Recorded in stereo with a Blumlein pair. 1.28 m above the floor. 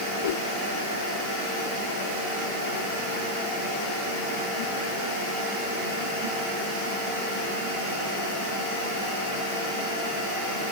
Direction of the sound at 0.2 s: 60° left.